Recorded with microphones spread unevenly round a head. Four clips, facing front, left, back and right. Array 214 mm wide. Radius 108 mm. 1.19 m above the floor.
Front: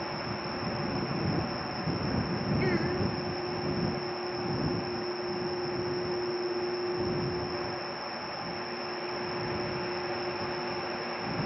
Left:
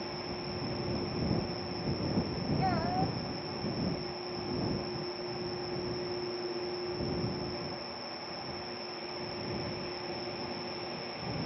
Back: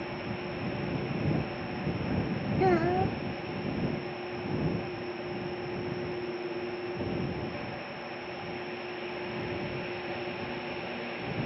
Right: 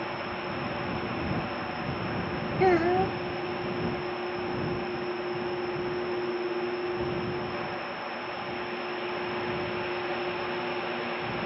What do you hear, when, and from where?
0.0 s an insect: 70° right
2.6 s a child speaking: 115° right